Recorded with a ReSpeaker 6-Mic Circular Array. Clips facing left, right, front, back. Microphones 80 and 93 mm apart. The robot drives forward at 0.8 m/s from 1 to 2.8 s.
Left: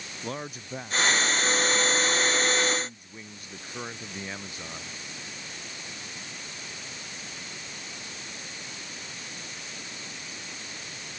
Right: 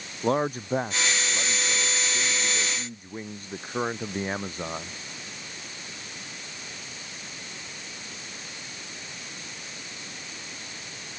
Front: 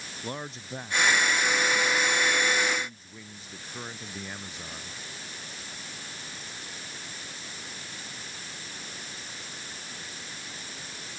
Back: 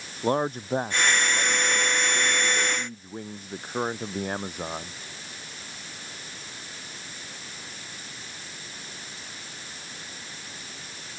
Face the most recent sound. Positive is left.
turn(degrees=-145)